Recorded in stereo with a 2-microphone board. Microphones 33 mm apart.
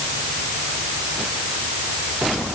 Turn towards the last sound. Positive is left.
No sound to turn to.